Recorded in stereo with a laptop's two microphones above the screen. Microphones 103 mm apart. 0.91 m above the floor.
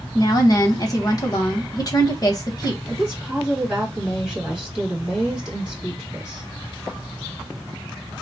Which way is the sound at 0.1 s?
35° left (ahead or behind).